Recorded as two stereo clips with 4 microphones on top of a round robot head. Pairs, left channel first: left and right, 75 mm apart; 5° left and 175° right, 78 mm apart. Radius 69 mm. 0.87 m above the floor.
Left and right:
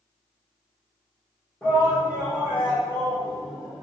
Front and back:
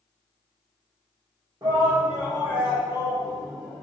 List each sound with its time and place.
1.6 s a shout: 160° left, 0.9 m; by 3.8 s 85° left, 1.2 m